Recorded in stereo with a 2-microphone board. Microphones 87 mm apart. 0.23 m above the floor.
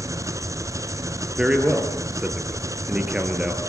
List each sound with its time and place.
0.0 s an engine running: 35° right (ahead or behind), 1.3 m
1.4 s a man speaking: 10° right (ahead or behind), 3.5 m